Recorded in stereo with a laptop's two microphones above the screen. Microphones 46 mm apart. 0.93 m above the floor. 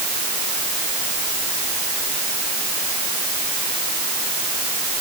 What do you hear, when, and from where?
Only background noise.